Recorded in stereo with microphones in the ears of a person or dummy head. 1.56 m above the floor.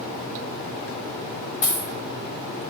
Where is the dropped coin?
20° left (ahead or behind), 1.8 m.